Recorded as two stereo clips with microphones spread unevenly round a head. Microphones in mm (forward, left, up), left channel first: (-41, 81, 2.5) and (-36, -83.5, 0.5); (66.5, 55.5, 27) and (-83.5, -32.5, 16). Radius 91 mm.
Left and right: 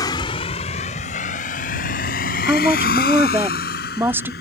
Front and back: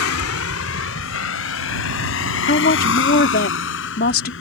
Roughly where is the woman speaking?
Ahead.